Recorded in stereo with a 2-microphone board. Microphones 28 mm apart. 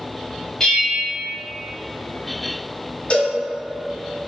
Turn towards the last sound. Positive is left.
turn(degrees=40)  # may be behind; listen again after turning